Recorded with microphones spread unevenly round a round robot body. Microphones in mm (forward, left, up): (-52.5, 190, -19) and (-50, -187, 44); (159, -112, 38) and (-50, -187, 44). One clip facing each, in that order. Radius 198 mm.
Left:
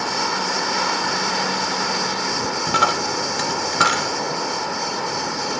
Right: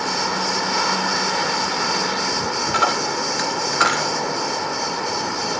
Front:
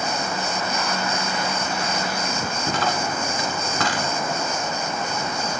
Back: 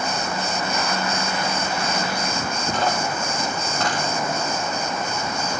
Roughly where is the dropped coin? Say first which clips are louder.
Right 1 dB, back 1 dB; ahead left.